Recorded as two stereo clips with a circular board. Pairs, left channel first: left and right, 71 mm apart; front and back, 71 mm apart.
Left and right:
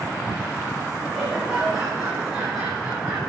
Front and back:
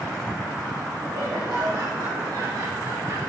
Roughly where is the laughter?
Behind.